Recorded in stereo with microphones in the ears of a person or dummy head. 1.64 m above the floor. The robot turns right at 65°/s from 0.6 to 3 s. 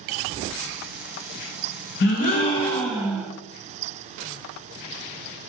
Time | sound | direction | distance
2.0 | a gasp | 120° left | 0.6 m